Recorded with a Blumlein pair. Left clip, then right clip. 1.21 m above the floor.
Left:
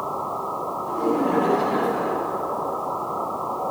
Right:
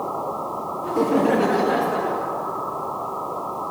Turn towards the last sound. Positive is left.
turn(degrees=-40)